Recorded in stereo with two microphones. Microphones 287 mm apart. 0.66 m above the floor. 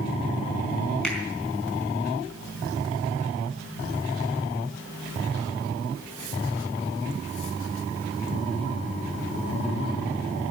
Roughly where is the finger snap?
Centre.